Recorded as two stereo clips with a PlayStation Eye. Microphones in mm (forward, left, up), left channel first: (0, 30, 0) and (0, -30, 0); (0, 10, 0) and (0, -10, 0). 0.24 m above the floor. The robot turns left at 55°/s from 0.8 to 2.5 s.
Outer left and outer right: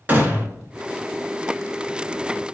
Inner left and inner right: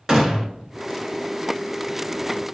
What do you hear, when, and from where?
0.1 s a gunshot: 30° right (ahead or behind), 1.0 m